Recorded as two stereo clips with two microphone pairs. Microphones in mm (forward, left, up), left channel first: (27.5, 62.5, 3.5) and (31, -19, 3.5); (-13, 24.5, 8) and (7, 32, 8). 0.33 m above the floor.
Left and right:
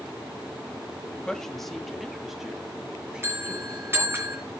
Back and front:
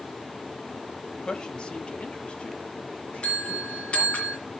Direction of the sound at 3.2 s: 145° right.